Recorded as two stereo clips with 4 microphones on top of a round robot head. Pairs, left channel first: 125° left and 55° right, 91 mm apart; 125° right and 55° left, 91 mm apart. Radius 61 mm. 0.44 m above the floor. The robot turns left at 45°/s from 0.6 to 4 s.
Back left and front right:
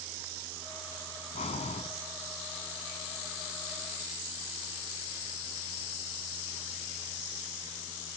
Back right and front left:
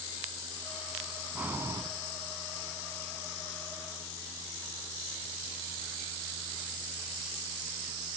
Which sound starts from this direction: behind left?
Breathing, at 1.4 s.